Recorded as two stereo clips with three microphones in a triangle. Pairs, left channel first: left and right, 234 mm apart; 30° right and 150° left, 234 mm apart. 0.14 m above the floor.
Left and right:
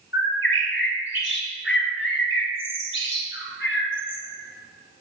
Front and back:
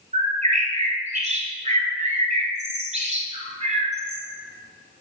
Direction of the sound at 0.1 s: 95° left.